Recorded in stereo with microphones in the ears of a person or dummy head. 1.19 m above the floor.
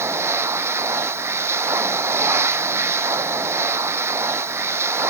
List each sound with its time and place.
0.0 s a machine running: 10° right (ahead or behind)